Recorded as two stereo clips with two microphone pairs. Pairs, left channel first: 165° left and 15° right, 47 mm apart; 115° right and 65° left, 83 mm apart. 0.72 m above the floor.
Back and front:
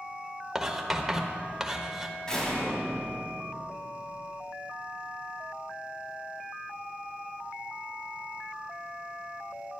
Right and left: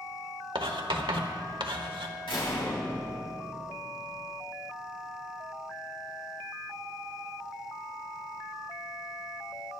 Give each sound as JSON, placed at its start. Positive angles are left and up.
{"t": 0.6, "sound": "writing", "azimuth_deg": 70, "distance_m": 1.2}
{"t": 2.3, "sound": "a door slam", "azimuth_deg": -120, "distance_m": 3.0}